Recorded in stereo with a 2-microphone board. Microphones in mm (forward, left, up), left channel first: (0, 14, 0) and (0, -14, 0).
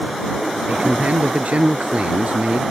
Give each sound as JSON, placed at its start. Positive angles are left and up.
{"t": 0.7, "sound": "a man speaking", "side_deg": -55}